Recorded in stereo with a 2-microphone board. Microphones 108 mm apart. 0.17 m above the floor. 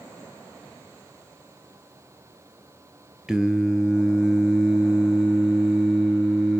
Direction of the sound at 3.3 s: 5° right (ahead or behind).